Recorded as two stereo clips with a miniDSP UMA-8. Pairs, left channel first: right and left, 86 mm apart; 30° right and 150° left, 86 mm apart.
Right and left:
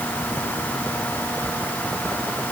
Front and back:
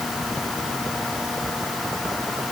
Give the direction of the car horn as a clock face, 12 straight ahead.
I don't hear a car horn.